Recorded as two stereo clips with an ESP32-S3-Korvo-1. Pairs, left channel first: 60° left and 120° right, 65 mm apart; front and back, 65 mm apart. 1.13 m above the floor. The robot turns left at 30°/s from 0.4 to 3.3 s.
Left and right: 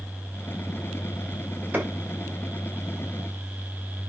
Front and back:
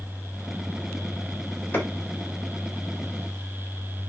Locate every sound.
1.7 s a clap: 60° right, 3.5 m; by 1.9 s 65° right, 3.5 m